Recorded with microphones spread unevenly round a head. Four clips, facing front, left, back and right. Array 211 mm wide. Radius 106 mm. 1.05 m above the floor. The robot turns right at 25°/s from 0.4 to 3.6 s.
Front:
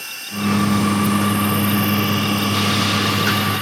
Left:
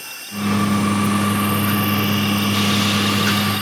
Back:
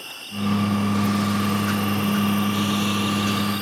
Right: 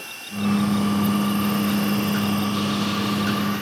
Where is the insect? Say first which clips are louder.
Left 1 dB, front 4 dB; 20° right; by 3.6 s 60° left.